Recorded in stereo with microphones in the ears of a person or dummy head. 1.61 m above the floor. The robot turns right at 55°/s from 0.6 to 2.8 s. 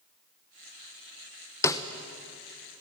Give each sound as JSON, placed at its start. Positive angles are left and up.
{"t": 1.6, "sound": "a snare drum", "side_deg": 20, "distance_m": 0.9}